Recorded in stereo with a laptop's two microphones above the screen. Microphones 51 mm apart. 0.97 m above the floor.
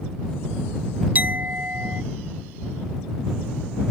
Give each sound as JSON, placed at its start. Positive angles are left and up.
{"t": 1.1, "sound": "a clink", "side_deg": -35}